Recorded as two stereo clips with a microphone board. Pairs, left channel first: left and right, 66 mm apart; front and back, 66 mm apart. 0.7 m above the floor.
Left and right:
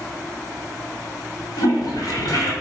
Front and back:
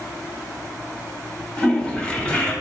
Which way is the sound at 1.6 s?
75° left.